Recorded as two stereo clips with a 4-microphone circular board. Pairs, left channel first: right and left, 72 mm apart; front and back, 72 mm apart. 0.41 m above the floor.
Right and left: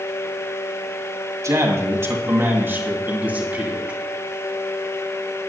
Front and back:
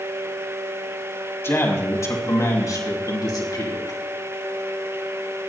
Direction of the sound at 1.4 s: 50° left.